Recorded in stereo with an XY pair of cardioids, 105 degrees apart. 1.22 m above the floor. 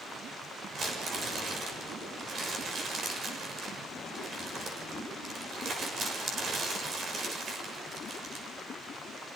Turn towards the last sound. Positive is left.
turn(degrees=-50)